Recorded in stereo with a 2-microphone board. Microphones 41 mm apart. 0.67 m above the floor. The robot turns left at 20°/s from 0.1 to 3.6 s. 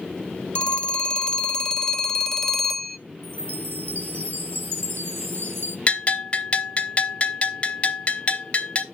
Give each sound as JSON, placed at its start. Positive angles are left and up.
{"t": 0.6, "sound": "a phone ringing", "azimuth_deg": 55, "distance_m": 0.6}
{"t": 3.2, "sound": "a chime", "side_deg": -85, "distance_m": 1.3}
{"t": 5.9, "sound": "a bell", "side_deg": 30, "distance_m": 0.8}